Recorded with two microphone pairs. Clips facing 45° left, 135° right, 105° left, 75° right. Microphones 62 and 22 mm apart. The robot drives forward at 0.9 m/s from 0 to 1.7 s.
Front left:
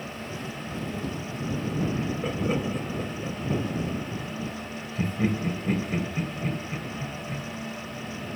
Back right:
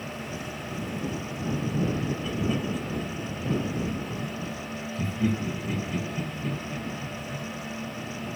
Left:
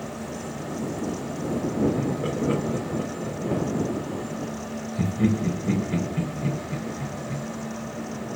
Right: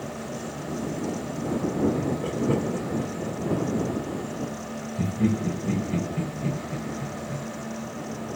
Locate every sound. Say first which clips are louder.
2.0 s laughter: front left 1 dB, left 1 dB; 70° left, 4 m